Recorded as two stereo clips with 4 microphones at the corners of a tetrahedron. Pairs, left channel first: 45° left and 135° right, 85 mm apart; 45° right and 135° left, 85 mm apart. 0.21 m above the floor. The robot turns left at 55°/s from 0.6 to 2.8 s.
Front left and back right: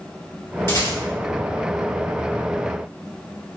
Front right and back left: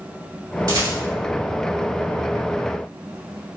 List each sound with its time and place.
0.7 s a rattle: 100° left, 1.6 m; by 1.0 s 85° left, 1.6 m